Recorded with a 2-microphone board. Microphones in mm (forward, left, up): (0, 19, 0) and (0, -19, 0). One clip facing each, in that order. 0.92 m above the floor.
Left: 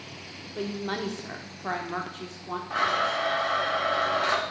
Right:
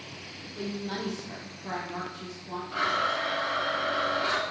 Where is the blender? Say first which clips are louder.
Left 2 dB; 85° left, 3.5 m.